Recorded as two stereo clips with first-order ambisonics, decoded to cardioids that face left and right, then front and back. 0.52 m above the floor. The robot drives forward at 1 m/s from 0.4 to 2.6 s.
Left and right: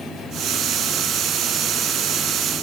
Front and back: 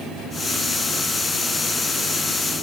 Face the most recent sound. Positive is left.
No sound to turn to.